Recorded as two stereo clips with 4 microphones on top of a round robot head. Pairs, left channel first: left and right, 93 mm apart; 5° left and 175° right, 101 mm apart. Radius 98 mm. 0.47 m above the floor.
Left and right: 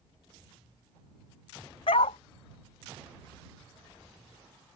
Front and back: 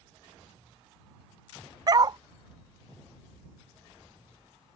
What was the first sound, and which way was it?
A dog barking, 130° left.